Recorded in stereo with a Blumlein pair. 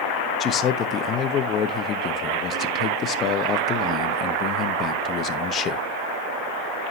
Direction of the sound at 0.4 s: 30° left.